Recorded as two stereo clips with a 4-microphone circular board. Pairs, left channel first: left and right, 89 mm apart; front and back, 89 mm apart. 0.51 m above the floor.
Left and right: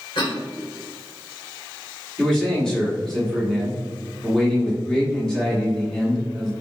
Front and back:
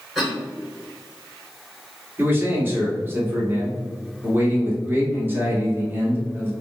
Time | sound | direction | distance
0.1 | a cough | 90° left | 1.8 m
2.2 | a man speaking | 160° left | 1.1 m